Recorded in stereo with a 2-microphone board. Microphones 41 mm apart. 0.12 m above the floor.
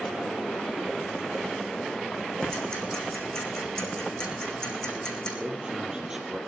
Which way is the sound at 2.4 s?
15° left (ahead or behind).